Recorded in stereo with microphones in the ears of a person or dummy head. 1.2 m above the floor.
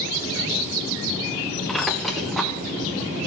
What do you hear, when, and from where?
1.7 s a squeak: centre (ahead or behind), 0.7 m